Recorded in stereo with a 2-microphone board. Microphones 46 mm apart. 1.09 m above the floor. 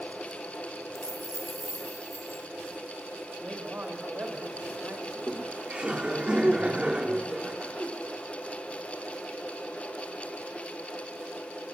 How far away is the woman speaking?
About 5 m.